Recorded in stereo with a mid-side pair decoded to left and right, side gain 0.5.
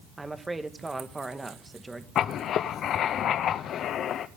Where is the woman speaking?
15° right, 1.7 m.